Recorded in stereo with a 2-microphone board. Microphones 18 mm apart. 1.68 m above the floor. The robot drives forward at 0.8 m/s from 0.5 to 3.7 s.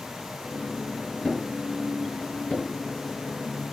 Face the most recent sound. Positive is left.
turn(degrees=65)  # may be behind; listen again after turning